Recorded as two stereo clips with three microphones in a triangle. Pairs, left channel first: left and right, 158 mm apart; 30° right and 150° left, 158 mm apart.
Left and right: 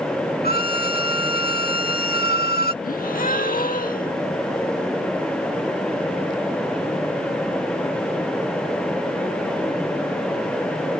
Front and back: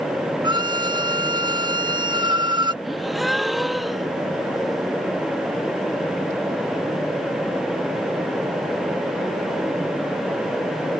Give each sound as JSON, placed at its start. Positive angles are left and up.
{"t": 0.4, "sound": "a violin", "azimuth_deg": 90}
{"t": 2.8, "sound": "a gasp", "azimuth_deg": 60}